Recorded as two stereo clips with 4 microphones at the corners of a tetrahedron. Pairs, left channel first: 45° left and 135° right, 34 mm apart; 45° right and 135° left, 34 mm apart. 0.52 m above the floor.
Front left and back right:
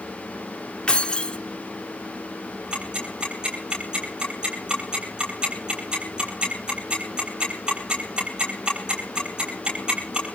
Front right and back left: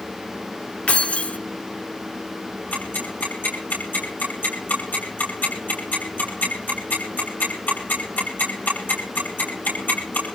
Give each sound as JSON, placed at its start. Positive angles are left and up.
{"t": 0.9, "sound": "keys jangling", "azimuth_deg": -5, "distance_m": 0.5}
{"t": 2.7, "sound": "ticking", "azimuth_deg": -70, "distance_m": 10.0}